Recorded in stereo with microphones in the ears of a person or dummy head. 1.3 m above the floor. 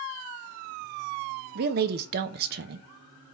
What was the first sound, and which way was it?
A woman speaking, 55° right (ahead or behind).